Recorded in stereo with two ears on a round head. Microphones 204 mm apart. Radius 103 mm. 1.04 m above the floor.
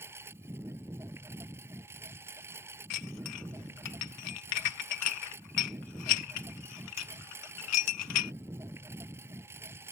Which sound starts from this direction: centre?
A lawn mower, at 0.0 s.